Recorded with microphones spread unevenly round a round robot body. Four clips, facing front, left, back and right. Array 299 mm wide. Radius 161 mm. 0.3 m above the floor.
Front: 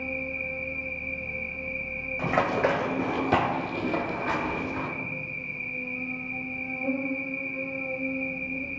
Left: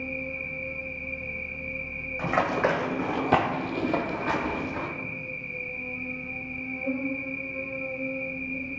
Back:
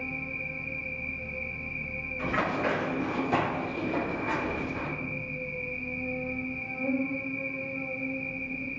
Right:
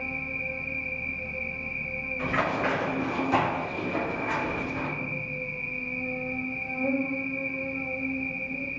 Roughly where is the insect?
Right.